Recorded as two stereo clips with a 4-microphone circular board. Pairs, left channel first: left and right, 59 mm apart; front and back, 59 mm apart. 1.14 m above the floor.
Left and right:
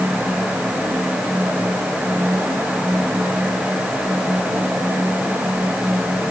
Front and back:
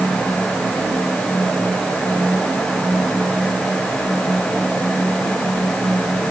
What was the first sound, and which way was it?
Only background noise.